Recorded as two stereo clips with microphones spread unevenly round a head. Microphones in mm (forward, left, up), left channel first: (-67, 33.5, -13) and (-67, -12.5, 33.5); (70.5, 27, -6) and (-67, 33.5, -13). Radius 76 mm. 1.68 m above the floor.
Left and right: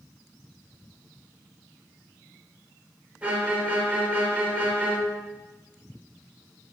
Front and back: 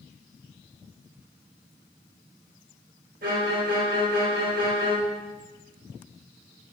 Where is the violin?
145° right, 2.5 m.